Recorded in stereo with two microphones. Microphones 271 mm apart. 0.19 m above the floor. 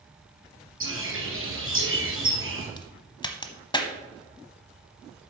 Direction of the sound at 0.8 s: 50° right (ahead or behind).